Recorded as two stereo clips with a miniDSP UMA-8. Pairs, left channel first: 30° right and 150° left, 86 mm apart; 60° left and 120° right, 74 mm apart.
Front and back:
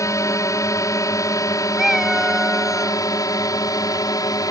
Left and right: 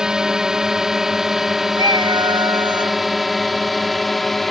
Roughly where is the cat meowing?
Behind right.